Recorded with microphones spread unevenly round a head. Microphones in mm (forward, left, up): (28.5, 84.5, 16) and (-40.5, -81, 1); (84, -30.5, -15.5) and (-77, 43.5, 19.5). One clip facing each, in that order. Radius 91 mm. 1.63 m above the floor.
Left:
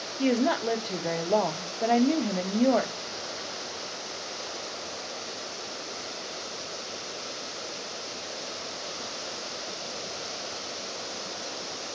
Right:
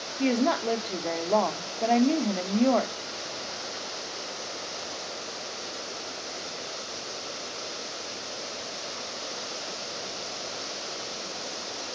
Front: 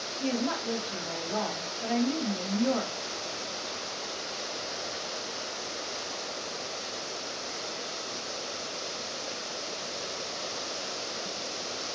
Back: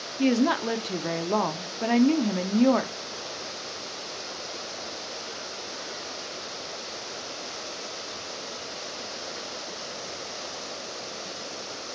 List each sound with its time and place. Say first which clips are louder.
0.2 s a woman speaking: even, back 8 dB; 150° left, 0.9 m